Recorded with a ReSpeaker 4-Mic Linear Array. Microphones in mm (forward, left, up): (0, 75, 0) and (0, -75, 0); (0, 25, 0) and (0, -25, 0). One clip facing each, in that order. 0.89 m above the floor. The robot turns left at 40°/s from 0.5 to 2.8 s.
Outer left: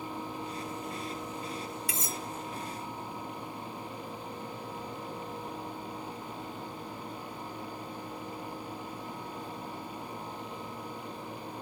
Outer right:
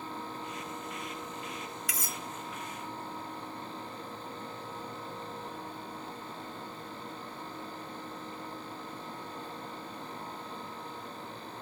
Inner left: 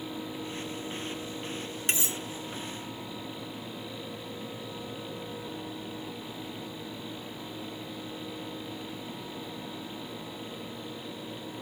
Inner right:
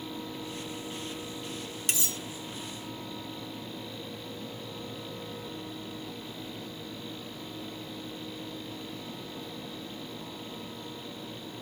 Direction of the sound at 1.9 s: 30° left (ahead or behind).